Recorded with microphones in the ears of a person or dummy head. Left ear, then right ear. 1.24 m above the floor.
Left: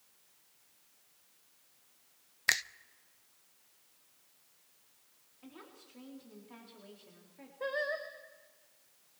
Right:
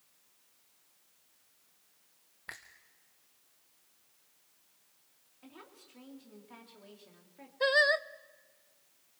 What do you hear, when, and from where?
2.5 s a finger snap: 65° left (ahead or behind), 0.5 m
5.4 s a woman speaking: 15° right (ahead or behind), 3.5 m
7.6 s singing: 55° right (ahead or behind), 0.6 m